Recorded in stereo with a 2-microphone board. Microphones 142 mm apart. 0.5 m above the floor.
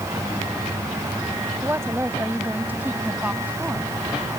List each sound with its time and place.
1.6 s a woman speaking: 20° right (ahead or behind); by 3.9 s 10° right (ahead or behind)